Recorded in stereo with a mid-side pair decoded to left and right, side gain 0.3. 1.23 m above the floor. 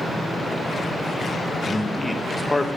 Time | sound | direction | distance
1.7 | a man speaking | 20° left | 1.5 m